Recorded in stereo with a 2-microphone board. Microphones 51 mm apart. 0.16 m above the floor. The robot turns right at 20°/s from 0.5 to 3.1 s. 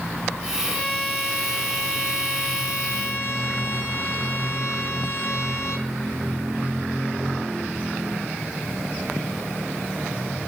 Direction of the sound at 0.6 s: 20° left.